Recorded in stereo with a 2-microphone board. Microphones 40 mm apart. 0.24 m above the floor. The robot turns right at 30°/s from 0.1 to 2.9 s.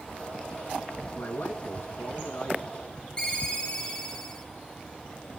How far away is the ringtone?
About 2 m.